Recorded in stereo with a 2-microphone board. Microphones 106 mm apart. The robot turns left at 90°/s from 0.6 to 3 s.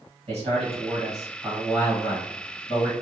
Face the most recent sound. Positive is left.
turn(degrees=50)